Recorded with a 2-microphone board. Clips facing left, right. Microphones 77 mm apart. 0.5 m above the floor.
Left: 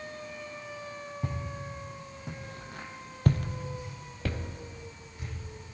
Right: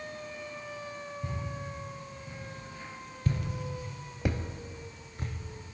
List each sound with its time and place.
1.2 s footsteps: 70° left (ahead or behind), 3 m; by 5.3 s 45° right (ahead or behind), 1.8 m